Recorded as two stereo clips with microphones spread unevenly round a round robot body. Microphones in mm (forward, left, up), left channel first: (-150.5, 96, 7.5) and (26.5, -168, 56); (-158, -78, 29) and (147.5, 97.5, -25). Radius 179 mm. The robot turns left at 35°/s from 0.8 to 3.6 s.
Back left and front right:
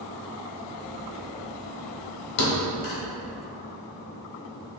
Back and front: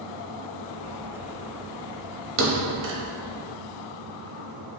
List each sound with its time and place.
2.4 s a thud: 90° left, 0.8 m; by 3.0 s 65° left, 0.8 m